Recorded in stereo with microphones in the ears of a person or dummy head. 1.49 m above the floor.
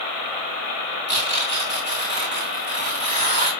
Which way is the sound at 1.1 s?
30° right (ahead or behind).